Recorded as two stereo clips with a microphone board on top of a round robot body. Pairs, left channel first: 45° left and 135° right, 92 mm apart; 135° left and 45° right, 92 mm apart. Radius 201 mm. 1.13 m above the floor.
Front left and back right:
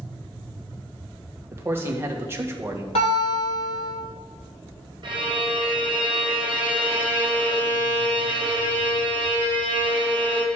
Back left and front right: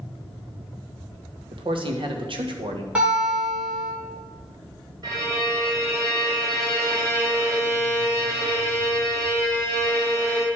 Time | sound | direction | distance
1.5 | a man speaking | 70° right | 1.8 m
3.0 | a guitar | 35° left | 3 m
5.0 | a violin | 90° right | 2 m